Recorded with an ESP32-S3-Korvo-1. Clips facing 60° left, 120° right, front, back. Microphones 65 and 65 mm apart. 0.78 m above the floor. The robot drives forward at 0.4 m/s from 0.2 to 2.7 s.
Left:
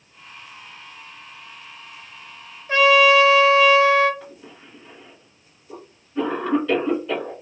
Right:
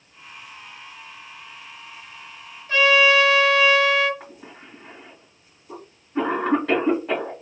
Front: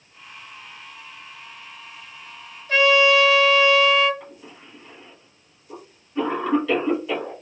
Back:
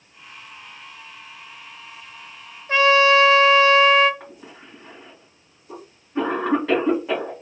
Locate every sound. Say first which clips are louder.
2.7 s a trumpet: left 3 dB, back 1 dB; 125° left, 0.9 m
4.2 s a cough: even, back 1 dB; 145° right, 1.6 m